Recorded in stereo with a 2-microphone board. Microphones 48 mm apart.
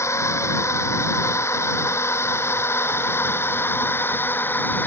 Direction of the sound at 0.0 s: 75° left (ahead or behind).